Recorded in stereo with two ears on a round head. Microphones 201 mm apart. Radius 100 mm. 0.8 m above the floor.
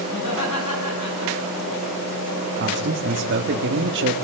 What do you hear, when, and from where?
0.1 s laughter: 80° left, 9 m; by 1.7 s 85° left, 10.5 m
2.6 s a man speaking: 55° right (ahead or behind), 1.4 m